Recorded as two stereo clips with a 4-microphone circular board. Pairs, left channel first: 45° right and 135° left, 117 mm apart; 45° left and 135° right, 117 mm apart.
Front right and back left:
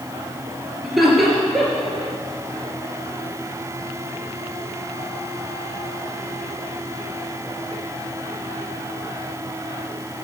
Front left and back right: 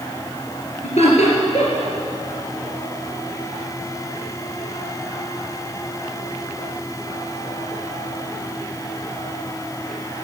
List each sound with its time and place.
0.8 s laughter: 45° left, 2.5 m